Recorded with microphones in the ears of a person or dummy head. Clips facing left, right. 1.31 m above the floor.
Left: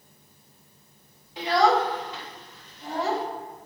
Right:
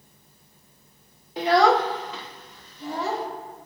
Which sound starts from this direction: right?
A child speaking, at 1.4 s.